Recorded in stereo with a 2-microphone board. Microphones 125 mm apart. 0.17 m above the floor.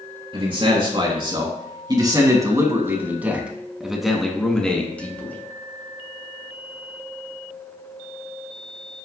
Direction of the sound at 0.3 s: 45° right (ahead or behind).